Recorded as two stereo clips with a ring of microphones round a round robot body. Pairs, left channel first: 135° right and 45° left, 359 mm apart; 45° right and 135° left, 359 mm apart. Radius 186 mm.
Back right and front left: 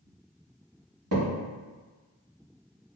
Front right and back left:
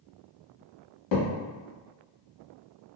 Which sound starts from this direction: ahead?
A thud, at 1.1 s.